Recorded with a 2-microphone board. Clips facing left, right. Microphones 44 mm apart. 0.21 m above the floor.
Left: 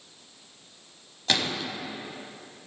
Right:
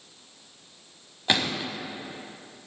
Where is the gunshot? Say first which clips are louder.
Right 2 dB; 20° right (ahead or behind), 1.1 m.